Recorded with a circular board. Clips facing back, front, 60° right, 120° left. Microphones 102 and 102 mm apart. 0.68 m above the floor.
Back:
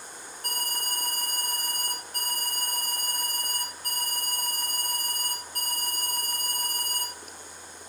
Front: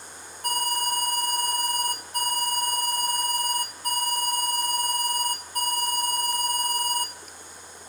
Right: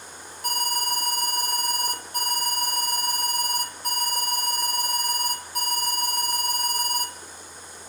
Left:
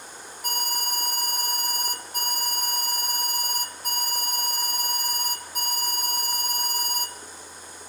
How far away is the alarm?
About 1.2 m.